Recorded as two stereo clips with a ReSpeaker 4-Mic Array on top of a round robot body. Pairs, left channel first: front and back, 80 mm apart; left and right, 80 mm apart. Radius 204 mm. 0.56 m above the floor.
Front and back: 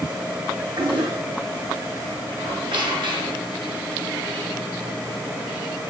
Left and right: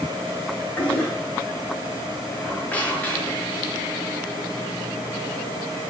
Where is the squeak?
160° left, 5.5 m.